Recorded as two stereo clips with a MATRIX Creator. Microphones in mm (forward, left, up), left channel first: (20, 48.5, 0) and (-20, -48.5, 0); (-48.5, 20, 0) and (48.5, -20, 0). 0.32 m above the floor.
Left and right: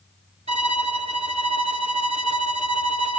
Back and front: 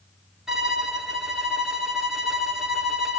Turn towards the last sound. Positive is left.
turn(degrees=-110)